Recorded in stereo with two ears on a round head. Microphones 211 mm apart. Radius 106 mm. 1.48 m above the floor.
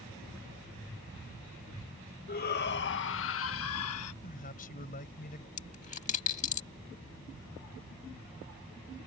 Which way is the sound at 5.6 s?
30° left (ahead or behind).